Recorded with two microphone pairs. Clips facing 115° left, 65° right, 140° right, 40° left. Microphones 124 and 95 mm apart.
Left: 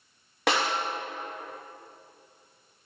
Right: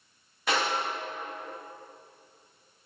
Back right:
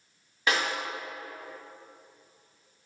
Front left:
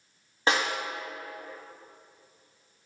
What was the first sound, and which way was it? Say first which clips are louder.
A snare drum: left 2 dB, front left 2 dB; 100° left.